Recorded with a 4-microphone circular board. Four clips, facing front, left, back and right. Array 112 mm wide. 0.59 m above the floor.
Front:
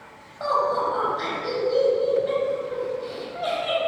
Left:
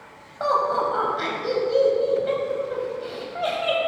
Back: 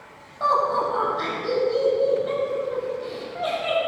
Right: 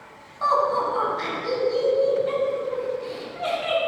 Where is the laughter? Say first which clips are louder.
Even, back 1 dB; 90° left, 4 m.